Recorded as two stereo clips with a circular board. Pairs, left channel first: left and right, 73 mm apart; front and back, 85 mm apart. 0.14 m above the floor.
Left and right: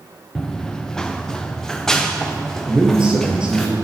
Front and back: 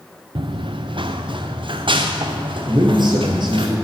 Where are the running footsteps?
170° left, 0.7 m; by 3.7 s 175° left, 2.5 m.